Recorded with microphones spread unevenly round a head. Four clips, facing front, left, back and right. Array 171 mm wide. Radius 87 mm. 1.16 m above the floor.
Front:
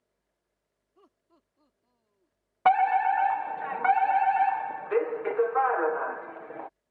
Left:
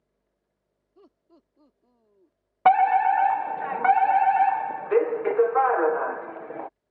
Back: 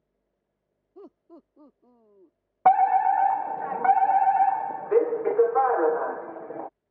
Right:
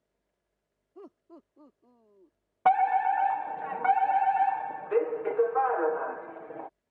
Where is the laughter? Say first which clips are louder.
Right 7 dB, back 16 dB; 150° right; by 2.4 s 175° right.